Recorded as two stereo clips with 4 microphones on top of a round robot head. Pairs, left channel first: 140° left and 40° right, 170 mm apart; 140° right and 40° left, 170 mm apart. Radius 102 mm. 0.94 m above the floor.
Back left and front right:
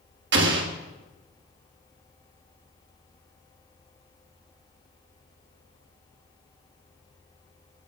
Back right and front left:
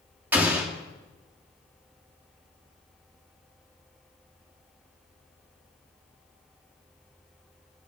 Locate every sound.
0.3 s an explosion: 40° right, 2.5 m